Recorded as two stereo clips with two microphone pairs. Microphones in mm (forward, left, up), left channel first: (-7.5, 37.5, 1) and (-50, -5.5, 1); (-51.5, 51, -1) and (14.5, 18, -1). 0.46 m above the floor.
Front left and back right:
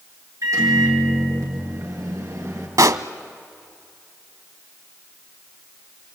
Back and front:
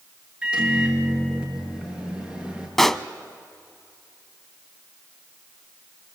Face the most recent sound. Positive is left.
turn(degrees=-125)